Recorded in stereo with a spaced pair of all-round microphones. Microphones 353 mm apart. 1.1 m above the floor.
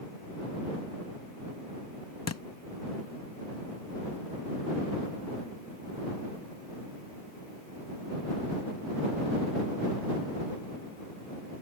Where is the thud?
45° left (ahead or behind).